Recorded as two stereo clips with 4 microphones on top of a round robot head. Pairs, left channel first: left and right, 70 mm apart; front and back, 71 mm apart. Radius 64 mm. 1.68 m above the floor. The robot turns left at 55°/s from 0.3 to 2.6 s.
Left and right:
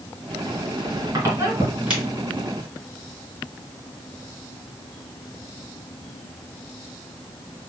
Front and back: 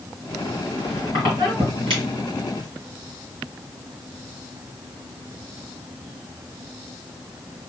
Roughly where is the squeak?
Right.